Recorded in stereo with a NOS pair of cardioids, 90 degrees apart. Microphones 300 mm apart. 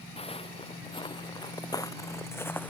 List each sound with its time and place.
0.2 s footsteps: 20° left; by 2.7 s 5° left